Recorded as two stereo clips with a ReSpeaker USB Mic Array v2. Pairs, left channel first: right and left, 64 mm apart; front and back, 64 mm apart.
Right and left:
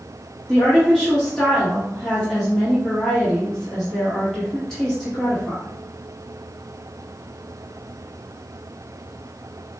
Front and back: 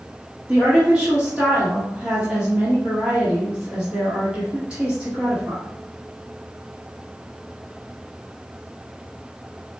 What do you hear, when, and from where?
0.5 s a woman speaking: 155° right, 1.1 m